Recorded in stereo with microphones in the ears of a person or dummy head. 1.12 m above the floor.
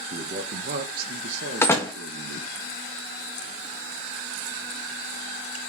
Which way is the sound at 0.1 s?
35° right (ahead or behind).